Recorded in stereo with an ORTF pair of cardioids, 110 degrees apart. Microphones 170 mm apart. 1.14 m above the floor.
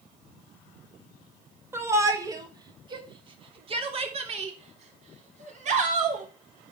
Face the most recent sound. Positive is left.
turn(degrees=-50)